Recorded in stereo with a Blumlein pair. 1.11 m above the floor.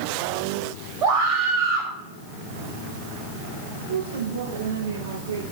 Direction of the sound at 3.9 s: 60° right.